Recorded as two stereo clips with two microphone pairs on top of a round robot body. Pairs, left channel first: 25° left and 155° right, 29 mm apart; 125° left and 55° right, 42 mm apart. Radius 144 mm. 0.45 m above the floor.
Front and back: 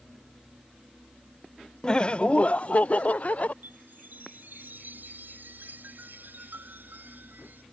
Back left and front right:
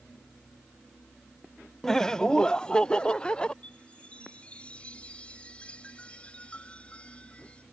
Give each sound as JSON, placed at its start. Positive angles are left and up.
{"t": 1.8, "sound": "laughter", "azimuth_deg": 40}
{"t": 3.6, "sound": "a chime", "azimuth_deg": -170}